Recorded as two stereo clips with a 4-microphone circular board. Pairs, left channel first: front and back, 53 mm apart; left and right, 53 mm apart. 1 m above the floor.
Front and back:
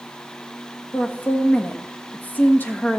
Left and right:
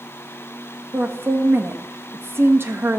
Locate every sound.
0.9 s a woman speaking: 55° right, 1.3 m